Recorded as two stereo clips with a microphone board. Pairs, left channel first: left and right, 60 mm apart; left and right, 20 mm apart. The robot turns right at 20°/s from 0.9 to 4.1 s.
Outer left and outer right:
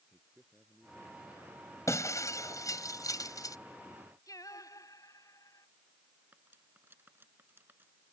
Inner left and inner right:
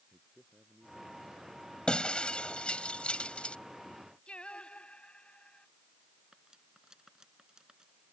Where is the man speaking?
15° right (ahead or behind); by 1.8 s centre (ahead or behind).